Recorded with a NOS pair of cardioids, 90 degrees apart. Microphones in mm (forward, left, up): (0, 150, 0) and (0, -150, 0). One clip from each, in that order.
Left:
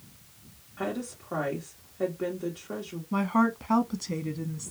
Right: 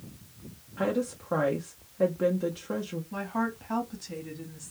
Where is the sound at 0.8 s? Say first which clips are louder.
Right 5 dB; 20° right, 0.8 m.